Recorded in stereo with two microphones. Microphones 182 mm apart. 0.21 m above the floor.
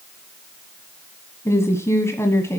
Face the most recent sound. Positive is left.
turn(degrees=15)  # may be behind; listen again after turning